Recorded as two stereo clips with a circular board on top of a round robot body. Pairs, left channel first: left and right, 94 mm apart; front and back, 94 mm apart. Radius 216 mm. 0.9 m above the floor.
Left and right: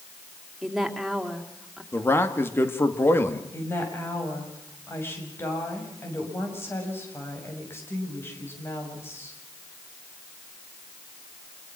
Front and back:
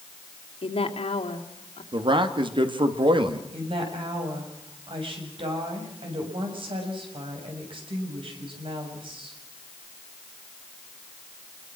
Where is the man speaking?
155° left, 2.5 m.